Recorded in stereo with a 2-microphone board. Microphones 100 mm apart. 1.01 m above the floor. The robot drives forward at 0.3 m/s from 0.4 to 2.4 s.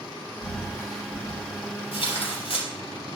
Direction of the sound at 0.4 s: 35° left (ahead or behind).